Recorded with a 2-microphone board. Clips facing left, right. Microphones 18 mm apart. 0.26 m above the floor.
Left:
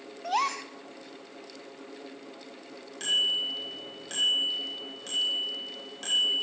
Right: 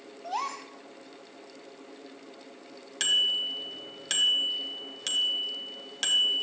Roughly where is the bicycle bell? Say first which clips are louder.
Right 1 dB; right.